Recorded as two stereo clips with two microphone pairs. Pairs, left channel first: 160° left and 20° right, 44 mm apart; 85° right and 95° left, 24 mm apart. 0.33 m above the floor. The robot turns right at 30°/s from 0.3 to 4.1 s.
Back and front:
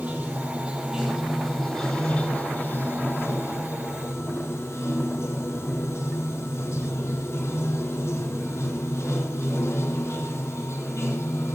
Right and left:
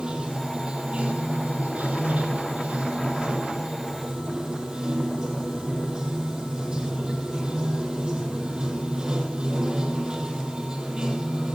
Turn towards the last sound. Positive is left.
turn(degrees=150)